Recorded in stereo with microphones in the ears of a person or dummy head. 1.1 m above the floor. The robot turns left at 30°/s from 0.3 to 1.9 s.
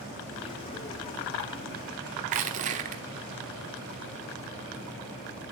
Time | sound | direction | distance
2.2 | crushing | 40° right (ahead or behind) | 1.1 m